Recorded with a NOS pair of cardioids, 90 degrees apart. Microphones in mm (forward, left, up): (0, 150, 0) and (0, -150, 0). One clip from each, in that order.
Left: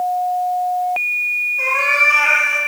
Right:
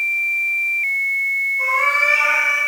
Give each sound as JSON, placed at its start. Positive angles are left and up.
{"t": 1.6, "sound": "a cat meowing", "azimuth_deg": 65, "distance_m": 3.5}